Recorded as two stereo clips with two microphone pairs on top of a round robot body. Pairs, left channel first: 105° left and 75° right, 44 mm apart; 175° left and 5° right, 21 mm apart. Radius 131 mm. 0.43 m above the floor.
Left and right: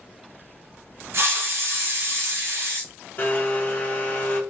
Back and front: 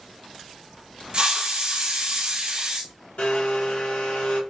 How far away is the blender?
About 0.8 m.